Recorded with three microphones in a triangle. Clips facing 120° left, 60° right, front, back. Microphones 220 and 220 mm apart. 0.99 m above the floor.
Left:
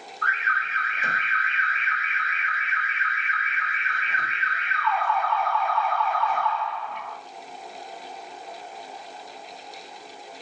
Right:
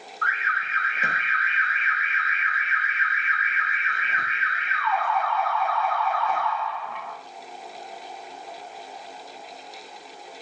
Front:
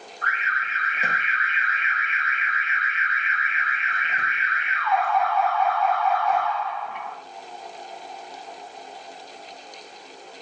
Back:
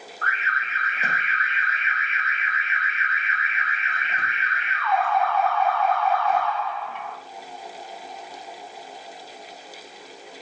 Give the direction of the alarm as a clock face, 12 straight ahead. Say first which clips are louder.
Left 1 dB, back 1 dB; 3 o'clock.